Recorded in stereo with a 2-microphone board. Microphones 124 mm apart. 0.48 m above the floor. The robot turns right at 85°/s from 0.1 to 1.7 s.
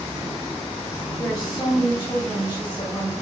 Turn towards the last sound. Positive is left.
turn(degrees=80)